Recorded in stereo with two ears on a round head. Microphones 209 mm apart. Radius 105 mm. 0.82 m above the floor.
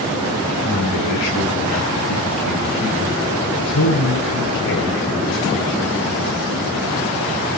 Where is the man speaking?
80° left, 8.5 m.